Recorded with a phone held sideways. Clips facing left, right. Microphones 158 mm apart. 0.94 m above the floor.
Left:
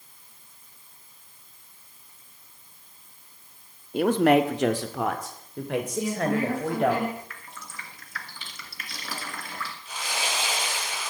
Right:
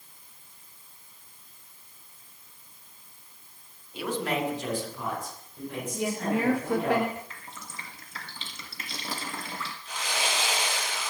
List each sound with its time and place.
3.9 s a man speaking: 50° left (ahead or behind), 1.3 m; by 6.9 s 80° left, 4.5 m
5.9 s a woman speaking: 70° right (ahead or behind), 3 m
7.3 s dripping: 25° right (ahead or behind), 2.5 m
9.8 s sawing: 5° left (ahead or behind), 8 m